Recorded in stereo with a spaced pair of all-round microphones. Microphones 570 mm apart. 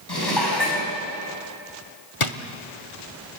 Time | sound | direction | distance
0.1 | dishes clattering | 40° left (ahead or behind) | 5.5 m
2.2 | a drawer | 60° left (ahead or behind) | 1.1 m